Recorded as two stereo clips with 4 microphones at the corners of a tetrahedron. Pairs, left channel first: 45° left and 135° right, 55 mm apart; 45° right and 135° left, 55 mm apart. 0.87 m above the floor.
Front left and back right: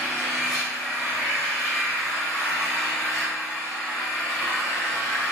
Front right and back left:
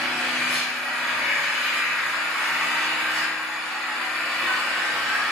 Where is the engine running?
45° left, 1.1 m.